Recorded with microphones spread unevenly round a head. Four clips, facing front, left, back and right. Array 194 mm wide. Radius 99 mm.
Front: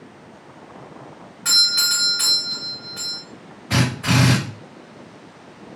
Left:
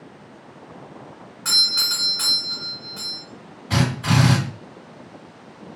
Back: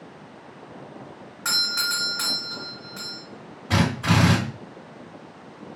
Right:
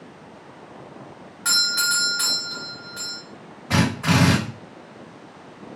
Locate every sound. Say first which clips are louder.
1.4 s a doorbell: right 7 dB, front 1 dB; 150° right, 1.9 m
3.7 s a drill: right 1 dB, front 1 dB; 130° right, 1.8 m